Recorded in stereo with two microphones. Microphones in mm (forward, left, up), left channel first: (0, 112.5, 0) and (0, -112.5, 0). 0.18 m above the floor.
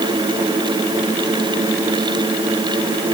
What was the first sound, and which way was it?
Only background noise.